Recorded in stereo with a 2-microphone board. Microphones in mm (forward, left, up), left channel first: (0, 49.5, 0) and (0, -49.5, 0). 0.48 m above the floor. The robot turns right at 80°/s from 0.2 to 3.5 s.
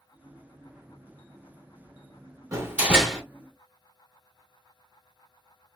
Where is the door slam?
45° right, 1.0 m; by 3.2 s 15° left, 1.0 m.